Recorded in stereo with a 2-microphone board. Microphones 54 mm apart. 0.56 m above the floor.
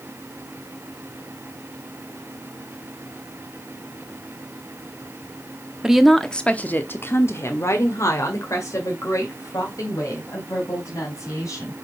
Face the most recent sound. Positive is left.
turn(degrees=80)